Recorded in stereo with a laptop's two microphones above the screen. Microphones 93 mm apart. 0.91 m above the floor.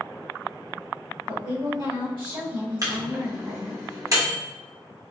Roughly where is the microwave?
Right.